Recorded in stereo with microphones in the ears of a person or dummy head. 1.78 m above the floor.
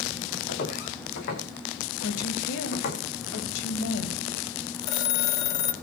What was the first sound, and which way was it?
Footsteps, 70° left (ahead or behind).